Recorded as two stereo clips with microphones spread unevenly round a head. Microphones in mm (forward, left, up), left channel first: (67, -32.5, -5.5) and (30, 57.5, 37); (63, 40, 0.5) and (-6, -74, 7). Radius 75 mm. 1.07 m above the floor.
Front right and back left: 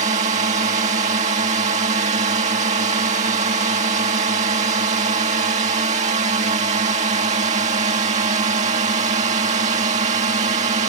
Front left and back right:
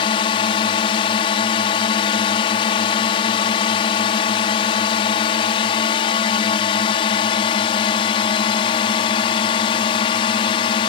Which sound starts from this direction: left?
A drone, at 0.0 s.